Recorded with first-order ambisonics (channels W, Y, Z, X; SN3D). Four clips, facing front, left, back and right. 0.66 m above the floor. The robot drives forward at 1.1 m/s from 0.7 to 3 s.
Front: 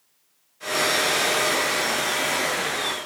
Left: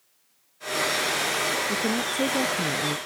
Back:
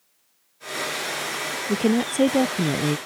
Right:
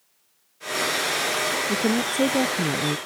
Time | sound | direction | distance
1.7 | a woman speaking | 165° right | ?